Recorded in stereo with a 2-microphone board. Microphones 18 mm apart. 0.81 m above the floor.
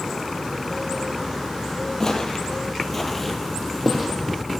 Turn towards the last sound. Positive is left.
turn(degrees=-15)  # may be behind; listen again after turning